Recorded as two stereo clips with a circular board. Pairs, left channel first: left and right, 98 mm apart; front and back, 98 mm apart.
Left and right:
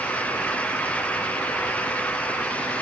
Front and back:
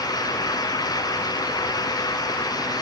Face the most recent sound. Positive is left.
No sound to turn to.